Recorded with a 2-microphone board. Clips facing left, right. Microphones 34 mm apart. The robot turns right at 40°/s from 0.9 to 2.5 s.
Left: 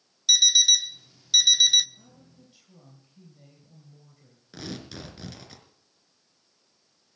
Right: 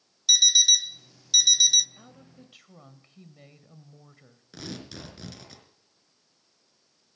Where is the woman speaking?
60° right (ahead or behind), 2.5 m; by 4.5 s 70° right (ahead or behind), 2.5 m.